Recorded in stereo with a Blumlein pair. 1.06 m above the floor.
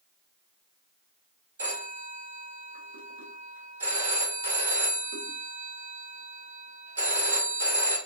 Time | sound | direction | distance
1.6 | a phone ringing | 65° right | 1.1 m